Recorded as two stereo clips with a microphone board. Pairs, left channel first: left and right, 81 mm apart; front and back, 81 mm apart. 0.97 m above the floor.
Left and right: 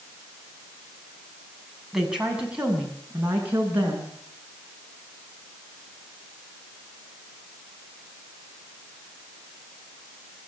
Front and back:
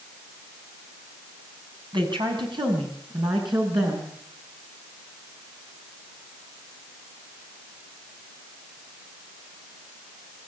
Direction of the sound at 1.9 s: 175° right.